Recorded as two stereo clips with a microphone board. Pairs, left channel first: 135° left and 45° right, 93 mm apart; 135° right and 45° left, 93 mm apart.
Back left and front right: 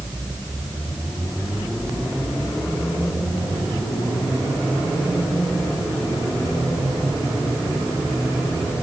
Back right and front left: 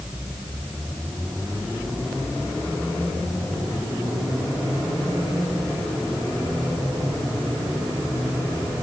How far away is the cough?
No cough in this recording.